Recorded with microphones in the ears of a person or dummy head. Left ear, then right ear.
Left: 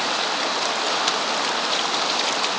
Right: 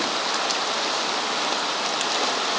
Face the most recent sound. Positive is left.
No sound to turn to.